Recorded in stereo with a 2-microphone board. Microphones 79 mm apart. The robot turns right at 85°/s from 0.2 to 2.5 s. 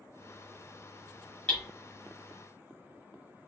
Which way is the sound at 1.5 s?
10° left (ahead or behind).